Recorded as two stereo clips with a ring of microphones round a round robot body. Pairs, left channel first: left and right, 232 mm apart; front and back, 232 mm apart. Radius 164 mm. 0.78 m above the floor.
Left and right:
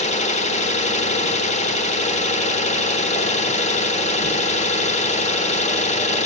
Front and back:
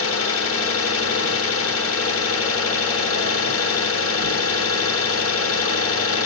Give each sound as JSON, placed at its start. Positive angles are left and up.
{"t": 0.0, "sound": "an engine running", "azimuth_deg": 25, "distance_m": 1.3}